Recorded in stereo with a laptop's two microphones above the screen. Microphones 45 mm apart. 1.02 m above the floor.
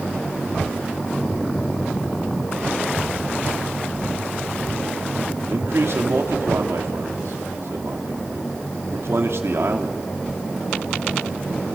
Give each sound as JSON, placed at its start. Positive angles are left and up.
{"t": 5.5, "sound": "a man speaking", "side_deg": -75, "distance_m": 3.0}